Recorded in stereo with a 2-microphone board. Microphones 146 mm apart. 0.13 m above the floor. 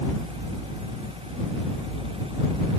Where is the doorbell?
I don't hear a doorbell.